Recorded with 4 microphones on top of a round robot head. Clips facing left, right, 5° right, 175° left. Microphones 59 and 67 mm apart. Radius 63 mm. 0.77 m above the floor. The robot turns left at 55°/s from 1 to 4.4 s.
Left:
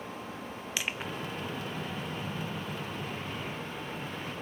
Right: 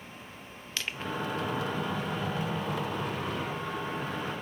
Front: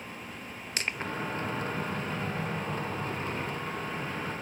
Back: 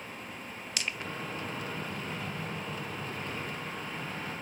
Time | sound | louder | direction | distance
0.8 | crushing | right 1 dB, front 3 dB | 15° left | 1.0 m